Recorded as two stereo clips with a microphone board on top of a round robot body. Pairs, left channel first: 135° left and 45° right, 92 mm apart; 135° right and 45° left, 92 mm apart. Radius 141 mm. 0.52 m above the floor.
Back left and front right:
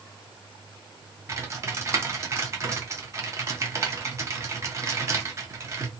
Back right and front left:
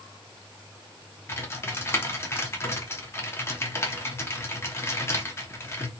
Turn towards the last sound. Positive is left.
turn(degrees=-85)